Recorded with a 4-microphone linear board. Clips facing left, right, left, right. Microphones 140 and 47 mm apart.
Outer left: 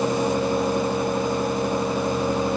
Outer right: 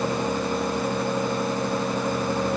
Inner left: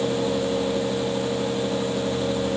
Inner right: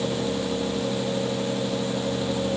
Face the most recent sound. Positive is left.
No sound to turn to.